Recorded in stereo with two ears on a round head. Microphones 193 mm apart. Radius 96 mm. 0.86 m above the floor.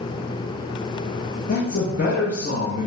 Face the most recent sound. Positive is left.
turn(degrees=40)  # may be behind; listen again after turning